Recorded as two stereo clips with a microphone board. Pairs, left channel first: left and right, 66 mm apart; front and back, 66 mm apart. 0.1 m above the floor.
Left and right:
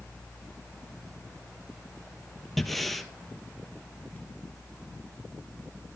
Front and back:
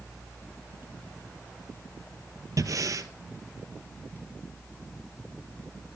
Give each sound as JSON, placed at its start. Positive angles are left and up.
{"t": 2.6, "sound": "breathing", "azimuth_deg": 180, "distance_m": 0.8}